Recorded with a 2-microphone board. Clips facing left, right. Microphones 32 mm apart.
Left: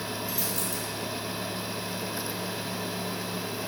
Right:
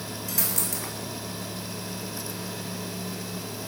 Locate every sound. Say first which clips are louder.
0.3 s a dropped coin: even; 70° right (ahead or behind), 1.2 m